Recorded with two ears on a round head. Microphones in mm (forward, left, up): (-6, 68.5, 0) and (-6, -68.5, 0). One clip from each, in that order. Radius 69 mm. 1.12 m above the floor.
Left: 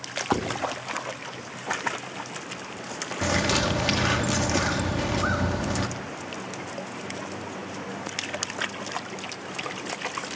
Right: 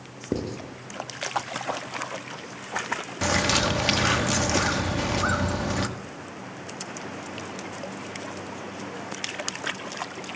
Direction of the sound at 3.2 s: 15° right (ahead or behind).